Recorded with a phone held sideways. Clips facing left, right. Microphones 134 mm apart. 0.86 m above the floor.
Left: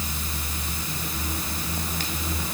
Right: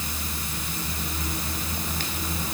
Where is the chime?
No chime in this recording.